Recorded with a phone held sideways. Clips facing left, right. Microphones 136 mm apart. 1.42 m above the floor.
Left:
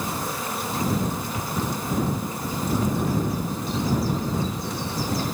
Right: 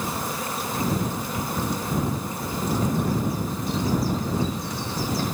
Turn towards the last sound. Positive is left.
No sound to turn to.